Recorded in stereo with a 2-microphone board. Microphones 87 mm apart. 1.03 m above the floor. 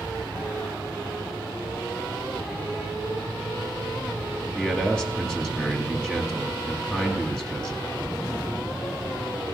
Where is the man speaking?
10° left (ahead or behind), 1.6 m.